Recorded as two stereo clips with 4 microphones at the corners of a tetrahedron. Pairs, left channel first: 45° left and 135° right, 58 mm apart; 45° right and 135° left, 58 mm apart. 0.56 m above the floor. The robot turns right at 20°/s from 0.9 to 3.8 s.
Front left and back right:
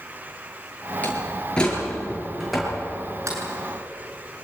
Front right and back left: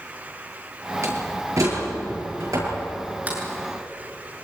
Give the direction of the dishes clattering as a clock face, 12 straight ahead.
I don't hear dishes clattering.